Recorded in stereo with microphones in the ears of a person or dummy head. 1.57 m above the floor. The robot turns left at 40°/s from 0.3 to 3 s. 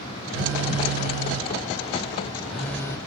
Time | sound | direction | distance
0.3 | a phone buzzing | 95° right | 1.0 m